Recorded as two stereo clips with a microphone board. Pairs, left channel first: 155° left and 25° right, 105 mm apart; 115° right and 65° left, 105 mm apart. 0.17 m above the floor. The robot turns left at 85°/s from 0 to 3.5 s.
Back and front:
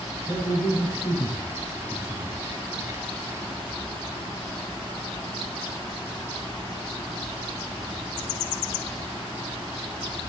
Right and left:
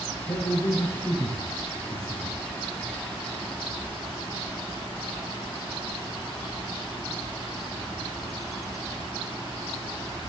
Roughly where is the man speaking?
Behind right.